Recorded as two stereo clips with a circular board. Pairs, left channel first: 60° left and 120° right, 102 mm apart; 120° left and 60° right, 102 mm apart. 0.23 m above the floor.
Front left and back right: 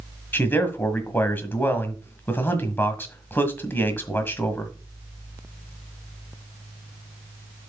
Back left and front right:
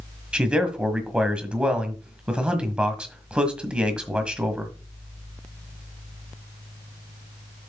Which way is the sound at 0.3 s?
10° left.